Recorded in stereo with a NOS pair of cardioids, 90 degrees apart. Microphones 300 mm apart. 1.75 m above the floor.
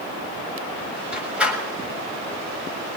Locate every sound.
1.1 s a door slam: 5° right, 7 m